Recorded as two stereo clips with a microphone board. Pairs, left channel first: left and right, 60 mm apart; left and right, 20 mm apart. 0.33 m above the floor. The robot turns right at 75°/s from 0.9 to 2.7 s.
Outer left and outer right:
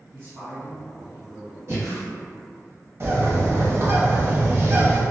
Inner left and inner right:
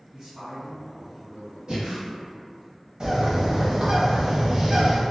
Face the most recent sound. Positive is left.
turn(degrees=-50)  # may be behind; listen again after turning